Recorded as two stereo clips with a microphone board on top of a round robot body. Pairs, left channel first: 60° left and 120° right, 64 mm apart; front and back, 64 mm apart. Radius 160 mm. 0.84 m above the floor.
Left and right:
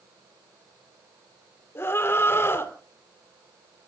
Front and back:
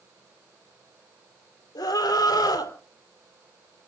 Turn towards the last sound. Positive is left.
turn(degrees=5)